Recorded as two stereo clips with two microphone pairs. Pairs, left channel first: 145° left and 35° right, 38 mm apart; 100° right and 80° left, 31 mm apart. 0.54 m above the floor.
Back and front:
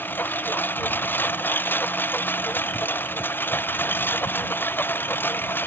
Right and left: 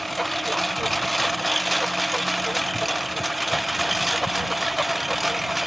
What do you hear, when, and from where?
0.0 s a lawn mower: 175° left; by 5.7 s 170° left